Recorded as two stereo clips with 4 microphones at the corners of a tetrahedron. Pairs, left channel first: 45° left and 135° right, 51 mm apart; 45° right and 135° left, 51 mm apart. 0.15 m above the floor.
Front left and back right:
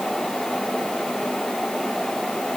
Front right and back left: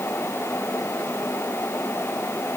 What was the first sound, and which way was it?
Only background noise.